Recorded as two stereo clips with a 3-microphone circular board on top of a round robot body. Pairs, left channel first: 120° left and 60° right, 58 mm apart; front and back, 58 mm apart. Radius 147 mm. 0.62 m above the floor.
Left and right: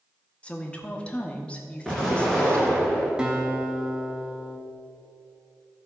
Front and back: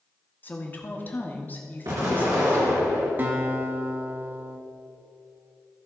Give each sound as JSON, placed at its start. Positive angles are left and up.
{"t": 0.4, "sound": "a woman speaking", "azimuth_deg": 50, "distance_m": 1.2}
{"t": 1.9, "sound": "an explosion", "azimuth_deg": -155, "distance_m": 3.0}
{"t": 3.2, "sound": "a guitar", "azimuth_deg": -135, "distance_m": 1.6}